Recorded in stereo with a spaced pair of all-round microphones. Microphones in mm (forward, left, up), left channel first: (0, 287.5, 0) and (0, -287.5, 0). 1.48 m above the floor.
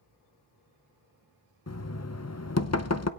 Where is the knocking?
25° left (ahead or behind), 0.8 m.